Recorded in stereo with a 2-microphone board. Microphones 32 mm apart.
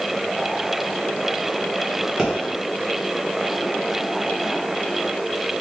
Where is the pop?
20° right (ahead or behind), 1.7 m.